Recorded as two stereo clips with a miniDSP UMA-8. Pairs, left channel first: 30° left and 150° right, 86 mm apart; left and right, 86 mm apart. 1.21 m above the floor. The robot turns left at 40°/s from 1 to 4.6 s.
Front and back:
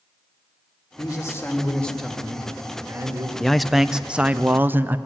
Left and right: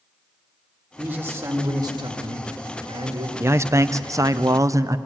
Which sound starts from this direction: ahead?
A man speaking, at 1.0 s.